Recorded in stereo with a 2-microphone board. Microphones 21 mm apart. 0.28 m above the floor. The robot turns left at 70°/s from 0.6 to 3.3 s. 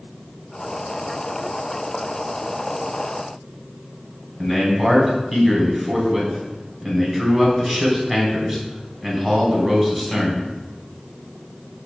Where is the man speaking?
20° right (ahead or behind), 2.5 m.